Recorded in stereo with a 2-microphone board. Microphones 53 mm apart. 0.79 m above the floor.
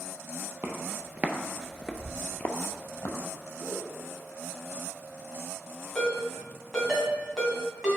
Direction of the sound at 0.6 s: 50° right (ahead or behind).